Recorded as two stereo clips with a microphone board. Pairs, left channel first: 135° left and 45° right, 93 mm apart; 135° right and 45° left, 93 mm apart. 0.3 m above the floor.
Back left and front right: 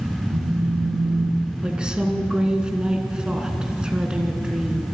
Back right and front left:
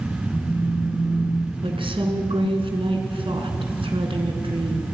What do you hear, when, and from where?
0.3 s a phone buzzing: 30° right, 5 m
1.6 s a woman speaking: 35° left, 2.5 m